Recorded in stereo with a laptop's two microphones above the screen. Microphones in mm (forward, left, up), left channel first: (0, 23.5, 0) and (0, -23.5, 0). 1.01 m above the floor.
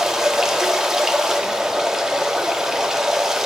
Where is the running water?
10° right (ahead or behind), 1.7 m.